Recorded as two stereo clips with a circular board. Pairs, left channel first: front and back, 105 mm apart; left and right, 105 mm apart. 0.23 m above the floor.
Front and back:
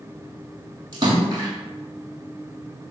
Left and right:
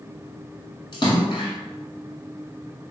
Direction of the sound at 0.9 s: 135° left.